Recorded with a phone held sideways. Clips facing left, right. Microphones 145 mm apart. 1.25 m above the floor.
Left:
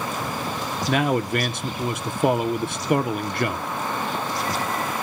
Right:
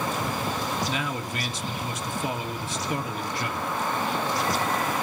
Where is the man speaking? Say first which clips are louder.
Left 9 dB; 60° left (ahead or behind), 0.7 m.